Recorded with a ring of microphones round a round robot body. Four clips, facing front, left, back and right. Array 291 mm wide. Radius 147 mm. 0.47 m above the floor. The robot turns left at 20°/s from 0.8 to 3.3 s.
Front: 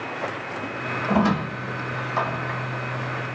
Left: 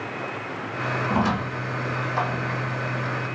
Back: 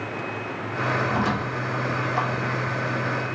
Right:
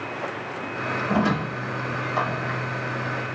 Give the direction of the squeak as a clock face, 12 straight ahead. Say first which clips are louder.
Right 2 dB, front 3 dB; 12 o'clock.